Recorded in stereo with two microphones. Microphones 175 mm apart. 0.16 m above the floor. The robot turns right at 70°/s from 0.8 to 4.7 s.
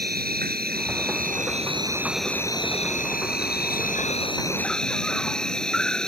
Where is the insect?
100° right; by 6.1 s 175° left.